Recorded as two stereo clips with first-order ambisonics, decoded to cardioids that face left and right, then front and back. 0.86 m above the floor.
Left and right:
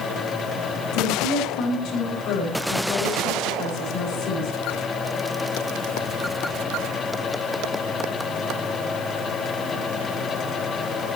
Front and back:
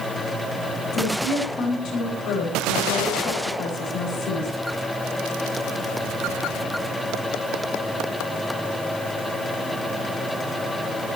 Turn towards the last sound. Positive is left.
turn(degrees=55)